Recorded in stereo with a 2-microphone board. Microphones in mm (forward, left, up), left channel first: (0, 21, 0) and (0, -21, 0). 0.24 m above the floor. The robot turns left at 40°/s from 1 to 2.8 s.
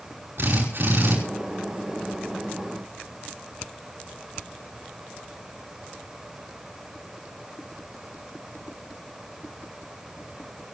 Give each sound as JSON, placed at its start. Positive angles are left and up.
{"t": 0.4, "sound": "a drill", "side_deg": -65, "distance_m": 5.5}